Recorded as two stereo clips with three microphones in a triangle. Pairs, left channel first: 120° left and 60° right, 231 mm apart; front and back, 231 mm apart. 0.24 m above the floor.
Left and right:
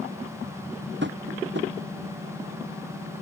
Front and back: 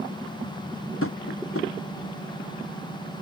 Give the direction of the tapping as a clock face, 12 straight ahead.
1 o'clock.